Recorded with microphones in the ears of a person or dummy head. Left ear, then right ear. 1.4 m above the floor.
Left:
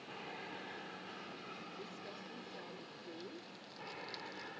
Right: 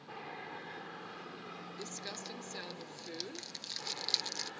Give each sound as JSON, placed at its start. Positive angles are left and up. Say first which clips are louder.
{"t": 0.0, "sound": "an aircraft", "louder": "right 2 dB", "side_deg": -10}
{"t": 1.8, "sound": "crumpling", "louder": "right 5 dB", "side_deg": -70}